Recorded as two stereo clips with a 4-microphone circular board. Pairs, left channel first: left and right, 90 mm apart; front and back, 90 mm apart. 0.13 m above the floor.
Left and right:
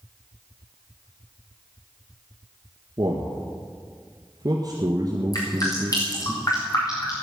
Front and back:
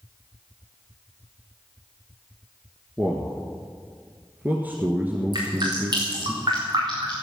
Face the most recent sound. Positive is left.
turn(degrees=140)